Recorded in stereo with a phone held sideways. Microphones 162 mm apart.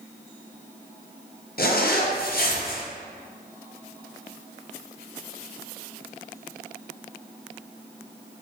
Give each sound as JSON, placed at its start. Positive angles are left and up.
{"t": 1.6, "sound": "a zipper", "side_deg": 65, "distance_m": 0.7}